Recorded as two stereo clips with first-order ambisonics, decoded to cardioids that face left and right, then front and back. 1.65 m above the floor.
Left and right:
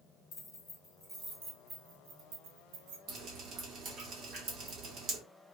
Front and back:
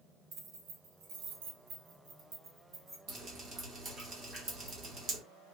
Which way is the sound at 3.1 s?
130° right.